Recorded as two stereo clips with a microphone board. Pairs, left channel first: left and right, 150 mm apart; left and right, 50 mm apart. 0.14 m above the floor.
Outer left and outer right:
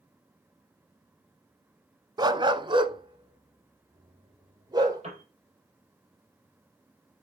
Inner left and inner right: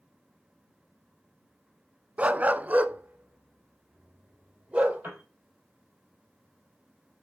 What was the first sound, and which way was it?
A dog barking, 30° right (ahead or behind).